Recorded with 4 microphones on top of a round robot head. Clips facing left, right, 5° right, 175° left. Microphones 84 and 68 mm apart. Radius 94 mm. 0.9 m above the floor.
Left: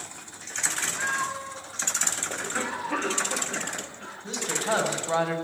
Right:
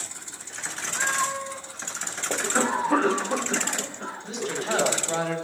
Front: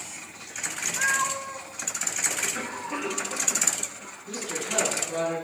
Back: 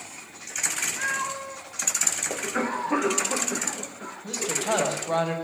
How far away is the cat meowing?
About 0.7 m.